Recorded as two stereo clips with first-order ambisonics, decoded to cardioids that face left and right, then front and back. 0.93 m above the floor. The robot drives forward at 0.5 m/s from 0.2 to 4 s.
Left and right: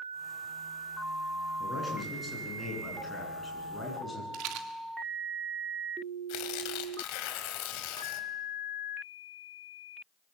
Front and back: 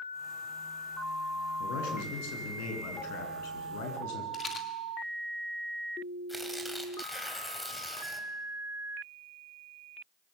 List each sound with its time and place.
1.6 s a man speaking: 10° left, 9 m; by 4.2 s 15° left, 8 m
4.3 s a rattle: 65° right, 2.5 m
6.3 s tearing paper: 90° left, 3 m